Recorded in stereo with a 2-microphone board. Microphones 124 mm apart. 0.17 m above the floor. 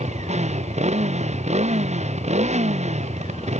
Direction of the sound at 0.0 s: 65° right (ahead or behind).